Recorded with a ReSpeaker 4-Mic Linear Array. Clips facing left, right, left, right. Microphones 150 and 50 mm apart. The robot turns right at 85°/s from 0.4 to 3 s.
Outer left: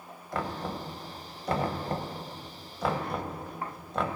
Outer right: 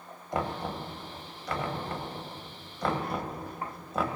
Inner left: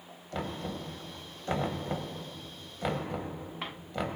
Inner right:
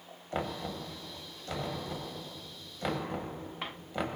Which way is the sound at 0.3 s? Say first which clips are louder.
Outer right 1 dB, inner right 1 dB; 20° right (ahead or behind).